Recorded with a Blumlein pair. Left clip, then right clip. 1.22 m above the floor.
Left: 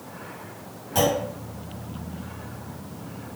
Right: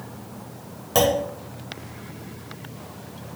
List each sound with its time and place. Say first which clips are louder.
0.9 s a clunk: right 3 dB; 60° right, 0.8 m